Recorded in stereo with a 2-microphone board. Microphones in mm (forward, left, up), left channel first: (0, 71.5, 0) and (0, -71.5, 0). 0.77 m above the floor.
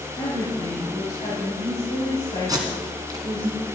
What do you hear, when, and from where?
0.2 s a woman speaking: 50° left (ahead or behind), 5 m
2.5 s tape being pulled: 30° right (ahead or behind), 1.9 m